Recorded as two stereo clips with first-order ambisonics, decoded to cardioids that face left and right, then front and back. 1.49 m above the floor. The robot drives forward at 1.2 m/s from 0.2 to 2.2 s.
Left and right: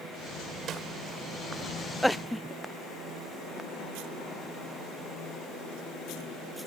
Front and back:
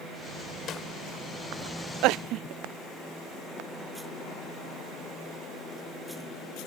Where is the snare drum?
45° right; by 0.9 s 50° right.